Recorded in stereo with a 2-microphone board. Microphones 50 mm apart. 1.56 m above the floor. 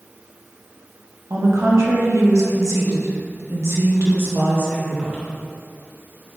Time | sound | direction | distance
1.3 | a woman speaking | 70° right (ahead or behind) | 1.7 m